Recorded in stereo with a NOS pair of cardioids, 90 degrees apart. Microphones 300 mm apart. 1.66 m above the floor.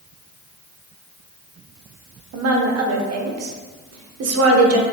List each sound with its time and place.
2.3 s a woman speaking: 55° right, 0.8 m